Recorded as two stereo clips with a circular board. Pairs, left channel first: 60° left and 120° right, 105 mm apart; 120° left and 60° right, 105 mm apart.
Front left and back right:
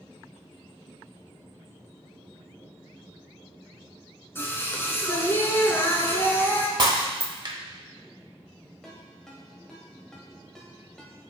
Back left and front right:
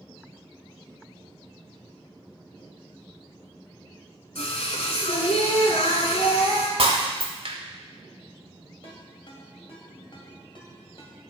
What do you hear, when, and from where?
4.3 s singing: 125° left, 1.1 m
6.8 s breaking glass: 80° right, 1.0 m
8.8 s a ringtone: 145° left, 1.5 m